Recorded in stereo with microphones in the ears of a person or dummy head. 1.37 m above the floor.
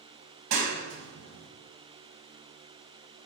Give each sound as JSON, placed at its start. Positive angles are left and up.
{"t": 0.5, "sound": "a clap", "side_deg": -60, "distance_m": 1.6}